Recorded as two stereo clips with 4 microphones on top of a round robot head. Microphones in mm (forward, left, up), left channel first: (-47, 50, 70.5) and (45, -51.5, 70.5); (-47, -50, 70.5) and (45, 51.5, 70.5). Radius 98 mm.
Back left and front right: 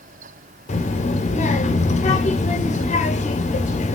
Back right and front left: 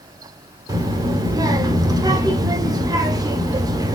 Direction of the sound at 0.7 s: 110° left.